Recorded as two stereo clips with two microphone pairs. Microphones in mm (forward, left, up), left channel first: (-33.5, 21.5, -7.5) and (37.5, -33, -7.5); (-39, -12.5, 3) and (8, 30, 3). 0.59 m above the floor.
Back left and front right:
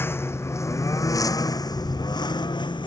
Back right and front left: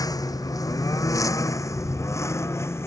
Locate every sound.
0.0 s a lawn mower: 150° right; by 2.9 s 175° left